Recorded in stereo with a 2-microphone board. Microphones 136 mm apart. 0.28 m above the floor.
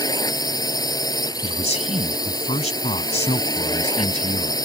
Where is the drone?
30° left (ahead or behind).